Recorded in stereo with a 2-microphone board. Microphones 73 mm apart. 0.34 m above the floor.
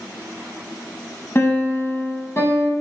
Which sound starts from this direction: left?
A piano, at 1.4 s.